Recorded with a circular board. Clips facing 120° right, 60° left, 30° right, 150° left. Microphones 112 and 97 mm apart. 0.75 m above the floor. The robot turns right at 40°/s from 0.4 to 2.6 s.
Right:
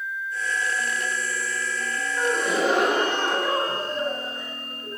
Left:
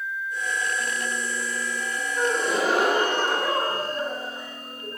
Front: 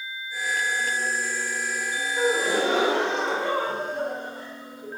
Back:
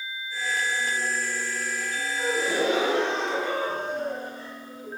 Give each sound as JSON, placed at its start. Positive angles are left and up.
{"t": 2.2, "sound": "a gasp", "azimuth_deg": -45, "distance_m": 1.4}